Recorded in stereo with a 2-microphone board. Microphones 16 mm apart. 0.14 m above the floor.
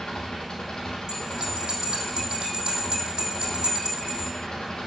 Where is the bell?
70° right (ahead or behind), 3.5 m.